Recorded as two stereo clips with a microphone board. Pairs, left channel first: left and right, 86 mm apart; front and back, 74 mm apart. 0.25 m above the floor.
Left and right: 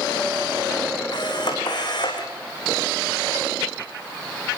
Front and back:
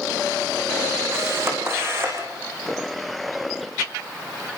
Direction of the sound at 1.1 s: 125° left.